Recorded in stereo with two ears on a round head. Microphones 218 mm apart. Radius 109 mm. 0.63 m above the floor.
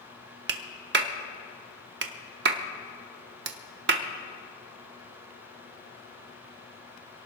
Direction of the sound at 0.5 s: 45° right (ahead or behind).